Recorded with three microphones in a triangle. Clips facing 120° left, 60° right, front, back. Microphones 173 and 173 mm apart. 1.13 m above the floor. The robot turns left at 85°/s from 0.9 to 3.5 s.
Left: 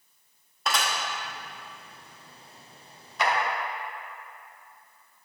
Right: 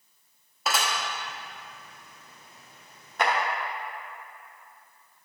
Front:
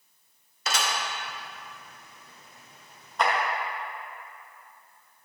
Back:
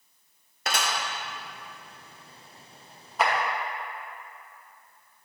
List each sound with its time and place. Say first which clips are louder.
0.7 s dishes clattering: even, even; 145° right, 1.0 m
3.2 s a clap: right 1 dB, even; 95° right, 1.1 m; by 3.3 s 105° right, 1.1 m